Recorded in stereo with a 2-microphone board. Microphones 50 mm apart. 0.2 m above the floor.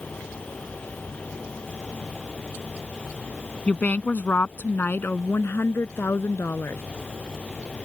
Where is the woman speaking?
30° left (ahead or behind); by 6.8 s 60° left (ahead or behind).